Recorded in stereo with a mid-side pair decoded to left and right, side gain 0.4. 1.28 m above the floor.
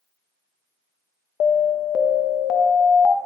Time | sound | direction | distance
1.4 | an alarm | 65° left | 1.0 m